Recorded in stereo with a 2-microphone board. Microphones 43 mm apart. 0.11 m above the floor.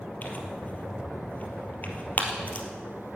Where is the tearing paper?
40° left (ahead or behind), 2 m.